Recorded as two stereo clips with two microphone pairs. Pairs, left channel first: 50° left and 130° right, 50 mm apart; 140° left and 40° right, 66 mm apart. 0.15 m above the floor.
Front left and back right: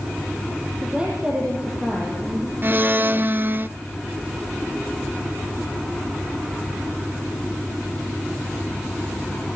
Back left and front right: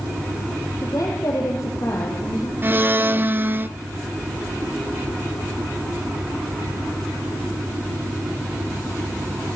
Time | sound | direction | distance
0.8 | a woman speaking | 165° left | 6 m
2.6 | a blender | 95° right | 0.8 m